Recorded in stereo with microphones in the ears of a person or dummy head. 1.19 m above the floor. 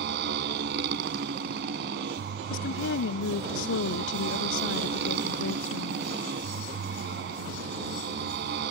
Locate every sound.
0.0 s a motorcycle: 55° right (ahead or behind)
2.5 s a woman speaking: 55° left (ahead or behind)